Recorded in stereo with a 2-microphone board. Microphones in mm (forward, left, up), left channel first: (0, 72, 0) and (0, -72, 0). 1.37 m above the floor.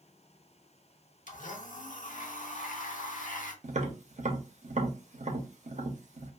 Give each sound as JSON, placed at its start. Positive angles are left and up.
{"t": 1.3, "sound": "a blender", "side_deg": 65, "distance_m": 0.5}
{"t": 3.6, "sound": "tapping", "side_deg": -55, "distance_m": 0.6}